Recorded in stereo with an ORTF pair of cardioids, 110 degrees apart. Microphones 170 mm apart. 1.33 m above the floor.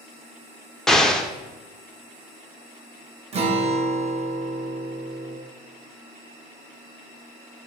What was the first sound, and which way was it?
An explosion, 5° left.